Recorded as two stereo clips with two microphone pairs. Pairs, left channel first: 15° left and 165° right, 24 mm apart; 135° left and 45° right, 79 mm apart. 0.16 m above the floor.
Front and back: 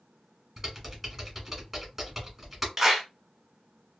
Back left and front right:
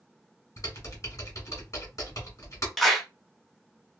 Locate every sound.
0.6 s typing on a keyboard: 130° left, 1.6 m
2.8 s a clap: 135° right, 0.8 m